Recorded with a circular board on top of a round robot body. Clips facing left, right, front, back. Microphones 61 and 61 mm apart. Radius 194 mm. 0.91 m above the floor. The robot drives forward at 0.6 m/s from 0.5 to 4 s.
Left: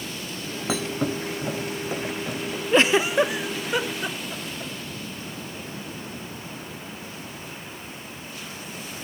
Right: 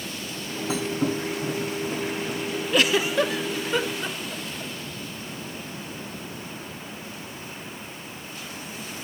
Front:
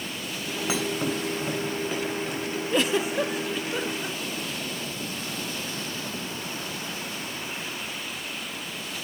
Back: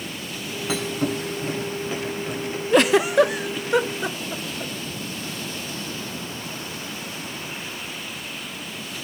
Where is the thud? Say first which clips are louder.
Right 1 dB, back 3 dB; 75° left, 3 m; by 2.6 s 100° left, 3 m.